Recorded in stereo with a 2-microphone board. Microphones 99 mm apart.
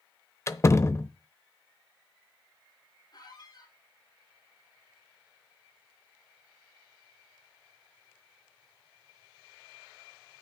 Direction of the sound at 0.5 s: 30° left (ahead or behind).